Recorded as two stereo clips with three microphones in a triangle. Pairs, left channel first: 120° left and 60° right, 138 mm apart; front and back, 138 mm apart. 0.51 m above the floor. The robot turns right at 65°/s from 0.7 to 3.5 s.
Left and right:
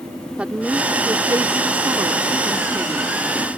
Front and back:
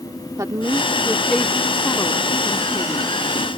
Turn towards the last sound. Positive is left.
turn(degrees=50)